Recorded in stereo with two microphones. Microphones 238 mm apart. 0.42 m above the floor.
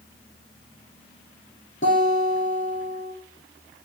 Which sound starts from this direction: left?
A guitar, at 1.8 s.